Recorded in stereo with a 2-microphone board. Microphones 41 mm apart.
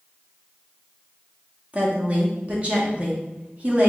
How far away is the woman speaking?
About 1.0 m.